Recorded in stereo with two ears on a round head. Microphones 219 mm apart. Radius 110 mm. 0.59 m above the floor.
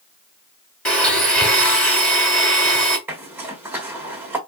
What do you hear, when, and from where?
0.8 s a blender: 5° left (ahead or behind), 1.8 m
3.1 s a zipper: 10° right (ahead or behind), 1.2 m